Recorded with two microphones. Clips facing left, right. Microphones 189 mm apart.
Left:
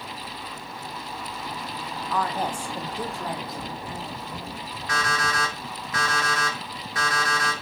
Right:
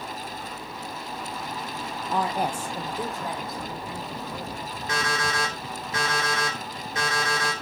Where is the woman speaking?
30° right (ahead or behind), 0.6 m; by 4.6 s 5° left (ahead or behind), 4.5 m.